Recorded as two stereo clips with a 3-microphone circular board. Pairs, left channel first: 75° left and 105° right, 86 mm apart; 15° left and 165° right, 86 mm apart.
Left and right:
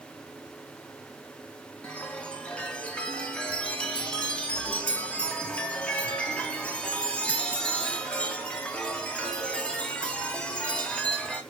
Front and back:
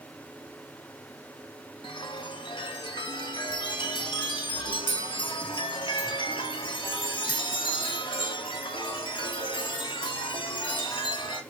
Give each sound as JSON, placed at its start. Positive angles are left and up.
{"t": 1.8, "sound": "a chime", "azimuth_deg": 0, "distance_m": 2.5}